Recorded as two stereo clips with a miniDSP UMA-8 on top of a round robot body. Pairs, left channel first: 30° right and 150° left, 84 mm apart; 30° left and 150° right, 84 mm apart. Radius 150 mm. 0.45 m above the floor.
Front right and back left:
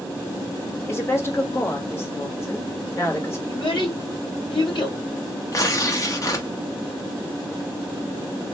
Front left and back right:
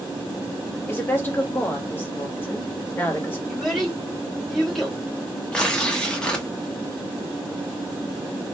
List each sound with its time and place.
0.9 s a woman speaking: 10° right, 1.5 m
3.5 s a child speaking: 60° right, 2.0 m
5.5 s tearing paper: 45° right, 1.3 m